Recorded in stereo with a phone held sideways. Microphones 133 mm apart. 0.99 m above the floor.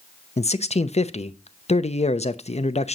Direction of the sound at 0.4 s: 55° left (ahead or behind).